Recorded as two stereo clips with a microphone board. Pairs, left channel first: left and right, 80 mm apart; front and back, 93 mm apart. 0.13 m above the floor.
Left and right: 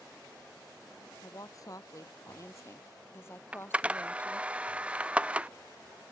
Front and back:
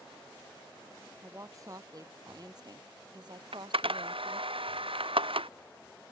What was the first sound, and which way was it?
A woman speaking, 125° left.